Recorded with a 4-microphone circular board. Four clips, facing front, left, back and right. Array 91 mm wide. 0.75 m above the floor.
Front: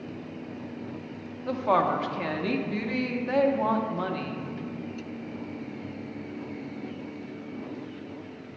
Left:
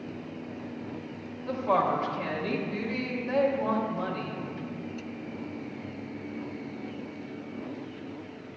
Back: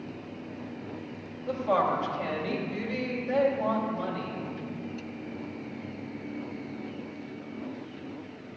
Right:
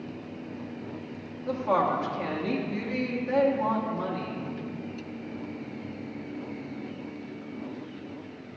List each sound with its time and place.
1.5 s a woman speaking: 10° right, 1.1 m